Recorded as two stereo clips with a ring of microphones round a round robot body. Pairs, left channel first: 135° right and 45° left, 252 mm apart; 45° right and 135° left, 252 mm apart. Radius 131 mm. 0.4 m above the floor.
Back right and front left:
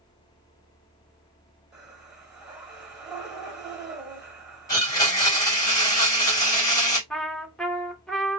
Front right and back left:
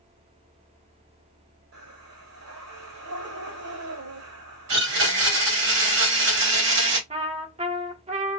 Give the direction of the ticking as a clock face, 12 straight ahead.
I don't hear ticking.